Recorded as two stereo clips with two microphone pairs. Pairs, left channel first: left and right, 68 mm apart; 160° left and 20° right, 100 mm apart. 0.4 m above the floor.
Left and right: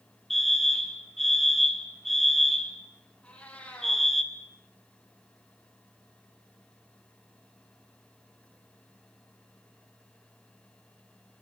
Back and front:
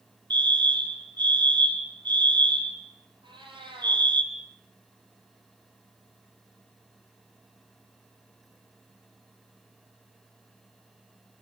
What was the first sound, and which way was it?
A fire alarm, 5° left.